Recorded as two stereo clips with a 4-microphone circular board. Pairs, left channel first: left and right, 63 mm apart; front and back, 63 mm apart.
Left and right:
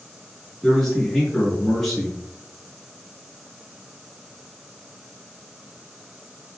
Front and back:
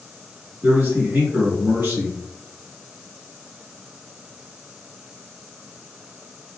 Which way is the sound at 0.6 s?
175° left.